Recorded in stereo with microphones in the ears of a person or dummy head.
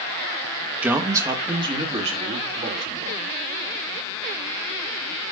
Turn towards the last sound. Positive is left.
turn(degrees=-40)  # may be behind; listen again after turning